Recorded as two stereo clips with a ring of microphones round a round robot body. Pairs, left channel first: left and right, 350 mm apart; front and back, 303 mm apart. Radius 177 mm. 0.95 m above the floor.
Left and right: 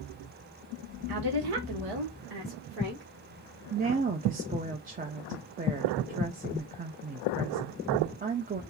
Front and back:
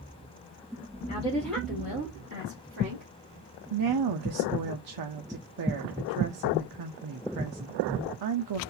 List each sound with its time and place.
1.1 s a woman speaking: 70° right, 1.1 m; by 3.0 s 125° right, 1.7 m
3.7 s a woman speaking: 160° right, 0.6 m